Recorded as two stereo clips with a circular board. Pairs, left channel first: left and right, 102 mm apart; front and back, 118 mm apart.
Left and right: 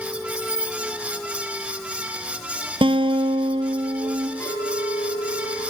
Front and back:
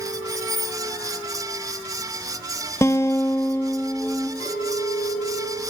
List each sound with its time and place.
0.3 s keys jangling: 50° left, 3.5 m
2.8 s a guitar: 65° right, 0.8 m
4.4 s a clink: 20° left, 8.5 m